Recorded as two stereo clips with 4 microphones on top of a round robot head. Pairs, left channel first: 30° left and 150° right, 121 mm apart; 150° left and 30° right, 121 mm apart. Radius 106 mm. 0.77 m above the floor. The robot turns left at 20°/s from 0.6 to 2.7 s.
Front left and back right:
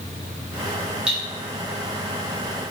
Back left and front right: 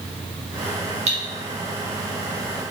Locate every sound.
1.1 s cutlery clinking: 65° right, 0.8 m